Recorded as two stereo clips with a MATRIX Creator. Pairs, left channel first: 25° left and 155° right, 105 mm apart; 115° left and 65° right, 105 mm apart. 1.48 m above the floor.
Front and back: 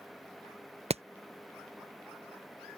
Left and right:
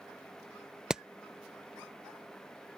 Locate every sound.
0.9 s hammering: 155° right